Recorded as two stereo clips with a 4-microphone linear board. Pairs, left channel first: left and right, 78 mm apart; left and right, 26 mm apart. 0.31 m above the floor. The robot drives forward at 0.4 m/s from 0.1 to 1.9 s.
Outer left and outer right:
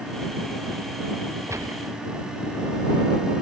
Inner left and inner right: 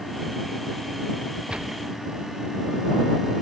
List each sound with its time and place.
1.5 s a gunshot: 40° right (ahead or behind)